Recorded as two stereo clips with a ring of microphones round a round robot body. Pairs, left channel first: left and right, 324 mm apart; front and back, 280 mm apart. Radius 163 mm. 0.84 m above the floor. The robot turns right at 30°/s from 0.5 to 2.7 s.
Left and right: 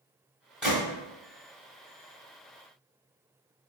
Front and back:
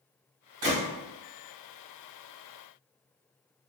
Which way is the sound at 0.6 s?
Straight behind.